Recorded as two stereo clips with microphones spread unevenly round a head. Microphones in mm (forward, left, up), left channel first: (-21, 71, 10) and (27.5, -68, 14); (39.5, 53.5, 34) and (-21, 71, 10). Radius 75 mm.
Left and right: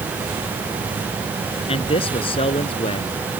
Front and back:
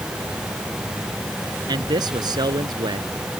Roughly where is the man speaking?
Behind.